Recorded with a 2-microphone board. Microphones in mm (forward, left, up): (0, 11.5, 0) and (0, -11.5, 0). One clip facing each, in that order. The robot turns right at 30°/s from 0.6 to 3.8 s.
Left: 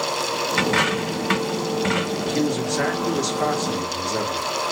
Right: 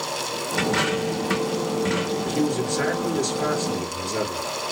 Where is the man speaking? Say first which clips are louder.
Left 1 dB; 45° left, 1.7 m; by 4.4 s 95° left, 1.7 m.